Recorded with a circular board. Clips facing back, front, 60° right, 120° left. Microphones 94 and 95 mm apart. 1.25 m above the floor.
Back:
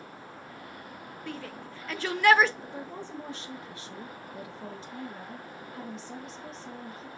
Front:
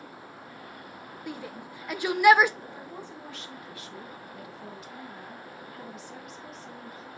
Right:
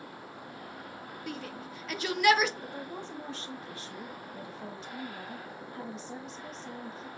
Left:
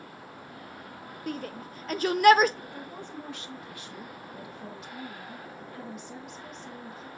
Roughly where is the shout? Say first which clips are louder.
Front 1 dB, left 5 dB; left.